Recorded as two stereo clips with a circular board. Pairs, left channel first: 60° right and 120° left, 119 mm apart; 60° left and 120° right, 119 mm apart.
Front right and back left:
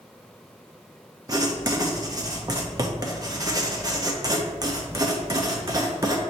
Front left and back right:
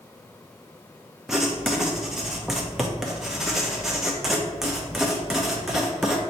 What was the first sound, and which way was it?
Writing, 155° left.